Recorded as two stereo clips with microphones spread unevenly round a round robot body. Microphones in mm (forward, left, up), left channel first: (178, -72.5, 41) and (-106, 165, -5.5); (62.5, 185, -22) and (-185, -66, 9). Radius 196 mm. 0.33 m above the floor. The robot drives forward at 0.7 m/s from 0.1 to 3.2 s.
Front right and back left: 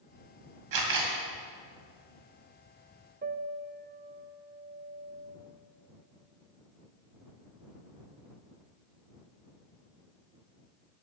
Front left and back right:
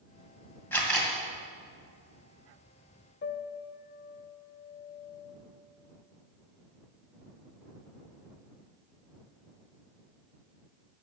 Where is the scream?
I don't hear a scream.